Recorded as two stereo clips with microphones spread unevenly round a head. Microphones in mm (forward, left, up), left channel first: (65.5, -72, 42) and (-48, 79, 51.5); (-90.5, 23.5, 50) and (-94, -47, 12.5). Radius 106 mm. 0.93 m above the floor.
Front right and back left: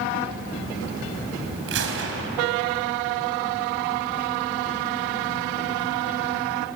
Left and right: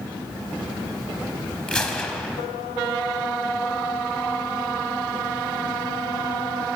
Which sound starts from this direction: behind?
A gunshot, at 1.7 s.